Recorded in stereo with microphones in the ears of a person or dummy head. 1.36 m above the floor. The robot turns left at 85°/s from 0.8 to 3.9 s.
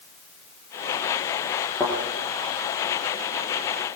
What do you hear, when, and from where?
1.8 s a thud: 15° left (ahead or behind), 9 m; by 2.0 s centre (ahead or behind), 9 m